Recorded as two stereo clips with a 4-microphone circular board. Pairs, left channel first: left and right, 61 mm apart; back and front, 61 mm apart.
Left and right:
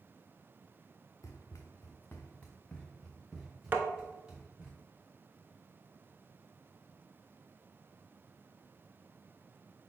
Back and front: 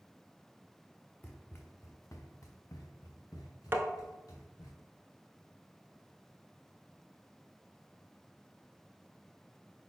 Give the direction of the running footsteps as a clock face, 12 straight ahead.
8 o'clock.